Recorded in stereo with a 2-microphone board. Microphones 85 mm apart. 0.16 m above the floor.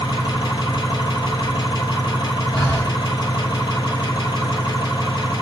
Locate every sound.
0.0 s an engine running: 65° left (ahead or behind), 1.0 m
2.5 s breathing: 30° left (ahead or behind), 1.2 m